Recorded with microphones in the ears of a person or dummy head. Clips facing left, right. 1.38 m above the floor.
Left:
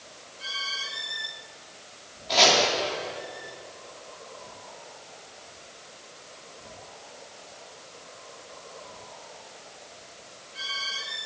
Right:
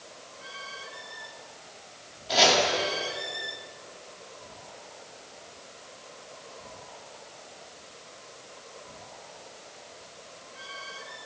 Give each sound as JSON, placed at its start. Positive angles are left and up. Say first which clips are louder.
{"t": 2.3, "sound": "chopping", "louder": "even", "side_deg": -5, "distance_m": 1.5}